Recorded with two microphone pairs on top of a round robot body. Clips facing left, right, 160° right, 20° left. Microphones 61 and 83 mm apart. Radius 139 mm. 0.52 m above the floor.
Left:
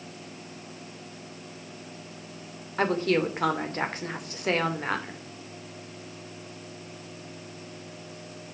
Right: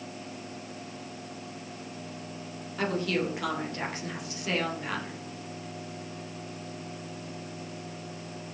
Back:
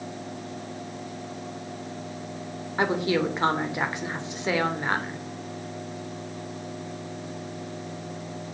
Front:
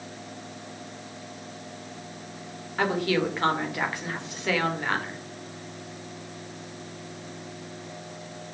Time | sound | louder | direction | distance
2.8 | a woman speaking | left 5 dB, back 1 dB | 130° left | 2.5 m